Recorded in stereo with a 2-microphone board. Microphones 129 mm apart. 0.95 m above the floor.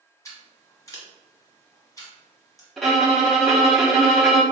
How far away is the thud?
No thud in this recording.